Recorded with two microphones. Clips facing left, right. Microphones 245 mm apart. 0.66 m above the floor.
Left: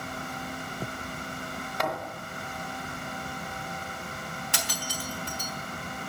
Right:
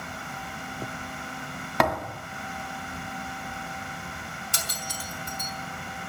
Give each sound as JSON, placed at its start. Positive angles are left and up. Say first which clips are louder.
{"t": 1.8, "sound": "a thud", "louder": "right 7 dB", "side_deg": -75, "distance_m": 1.7}
{"t": 4.5, "sound": "breaking glass", "louder": "left 3 dB", "side_deg": 85, "distance_m": 3.5}